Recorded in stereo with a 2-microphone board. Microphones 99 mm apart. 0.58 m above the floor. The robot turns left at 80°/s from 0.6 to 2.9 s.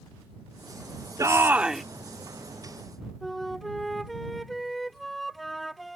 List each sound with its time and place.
1.2 s a shout: 130° right; by 1.8 s straight behind
3.2 s a flute: centre (ahead or behind)